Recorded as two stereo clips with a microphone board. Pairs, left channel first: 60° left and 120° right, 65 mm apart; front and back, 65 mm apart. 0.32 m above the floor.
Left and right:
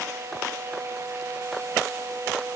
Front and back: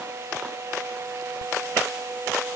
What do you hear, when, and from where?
Only background noise.